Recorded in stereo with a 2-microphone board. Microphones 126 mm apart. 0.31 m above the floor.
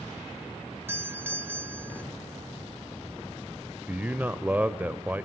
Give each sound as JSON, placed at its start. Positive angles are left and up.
{"t": 0.9, "sound": "a doorbell", "side_deg": -20, "distance_m": 1.3}
{"t": 3.9, "sound": "a man speaking", "side_deg": -15, "distance_m": 0.9}